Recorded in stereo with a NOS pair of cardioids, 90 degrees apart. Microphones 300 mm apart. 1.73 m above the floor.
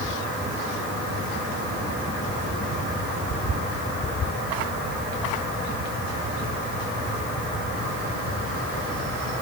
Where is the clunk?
I don't hear a clunk.